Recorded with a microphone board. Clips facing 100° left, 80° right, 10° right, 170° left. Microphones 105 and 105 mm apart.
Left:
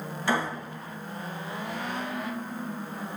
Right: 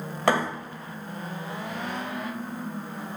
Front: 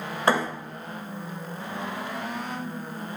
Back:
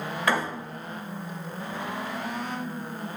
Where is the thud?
70° right, 2 m.